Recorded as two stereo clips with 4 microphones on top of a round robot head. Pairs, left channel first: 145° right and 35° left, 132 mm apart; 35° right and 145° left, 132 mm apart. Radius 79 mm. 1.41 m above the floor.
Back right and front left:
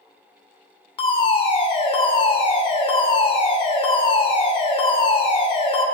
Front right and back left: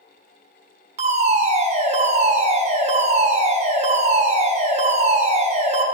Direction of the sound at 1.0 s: 170° left.